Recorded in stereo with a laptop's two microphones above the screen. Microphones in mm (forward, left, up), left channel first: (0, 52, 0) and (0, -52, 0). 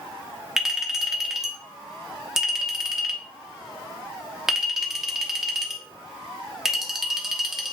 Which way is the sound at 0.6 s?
5° right (ahead or behind).